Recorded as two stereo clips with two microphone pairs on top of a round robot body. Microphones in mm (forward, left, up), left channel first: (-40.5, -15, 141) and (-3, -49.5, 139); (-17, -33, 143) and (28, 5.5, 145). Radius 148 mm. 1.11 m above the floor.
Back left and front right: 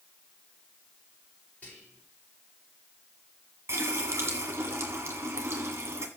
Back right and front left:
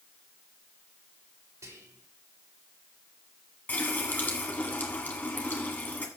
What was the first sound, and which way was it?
Whispering, 75° left.